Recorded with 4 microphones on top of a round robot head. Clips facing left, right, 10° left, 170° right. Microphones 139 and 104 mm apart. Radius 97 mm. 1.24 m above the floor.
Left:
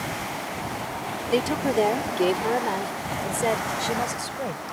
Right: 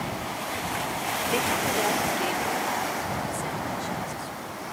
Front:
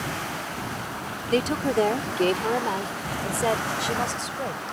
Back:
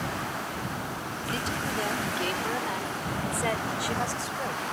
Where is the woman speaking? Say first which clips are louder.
Left 6 dB, front 10 dB; 35° left; by 4.6 s 80° left.